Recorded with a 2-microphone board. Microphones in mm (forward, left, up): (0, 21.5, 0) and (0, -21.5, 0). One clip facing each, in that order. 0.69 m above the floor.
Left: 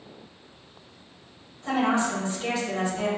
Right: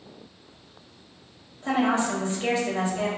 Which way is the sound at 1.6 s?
40° right (ahead or behind).